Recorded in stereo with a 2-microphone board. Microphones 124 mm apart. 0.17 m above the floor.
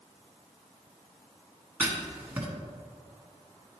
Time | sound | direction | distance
1.8 | writing | 15° right (ahead or behind) | 1.4 m